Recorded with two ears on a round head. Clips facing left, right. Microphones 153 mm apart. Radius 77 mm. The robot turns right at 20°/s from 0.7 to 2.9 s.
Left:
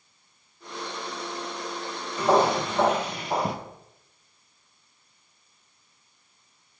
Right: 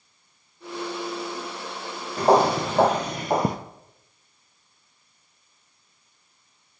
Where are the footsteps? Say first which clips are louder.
Right 3 dB; 35° right (ahead or behind), 1.4 m; by 3.6 s 40° right (ahead or behind), 0.7 m.